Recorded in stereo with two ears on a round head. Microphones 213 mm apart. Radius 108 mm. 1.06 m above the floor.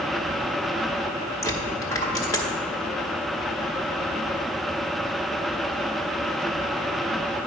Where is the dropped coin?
15° left (ahead or behind), 1.0 m.